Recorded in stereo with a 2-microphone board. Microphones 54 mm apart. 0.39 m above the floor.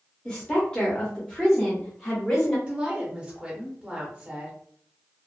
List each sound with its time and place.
0.2 s a woman speaking: 15° left (ahead or behind), 1.0 m; by 2.6 s 5° left (ahead or behind), 1.5 m
2.7 s a woman speaking: 20° right (ahead or behind), 0.9 m